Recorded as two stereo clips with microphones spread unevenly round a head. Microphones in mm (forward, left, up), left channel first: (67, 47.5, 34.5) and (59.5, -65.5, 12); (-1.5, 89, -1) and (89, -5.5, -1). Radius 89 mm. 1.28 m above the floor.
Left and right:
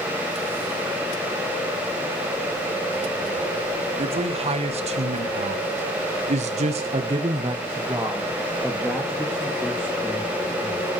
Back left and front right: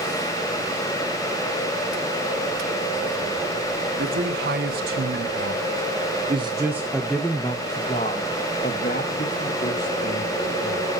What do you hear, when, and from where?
4.0 s a man speaking: 60° right, 3 m; by 10.9 s 160° left, 4 m